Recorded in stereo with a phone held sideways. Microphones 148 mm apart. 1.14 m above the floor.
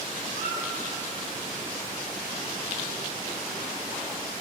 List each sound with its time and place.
0.3 s a squeak: 65° right (ahead or behind), 1.0 m